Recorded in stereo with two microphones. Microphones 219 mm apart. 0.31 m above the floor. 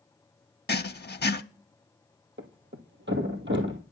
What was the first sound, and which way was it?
Writing, 50° left (ahead or behind).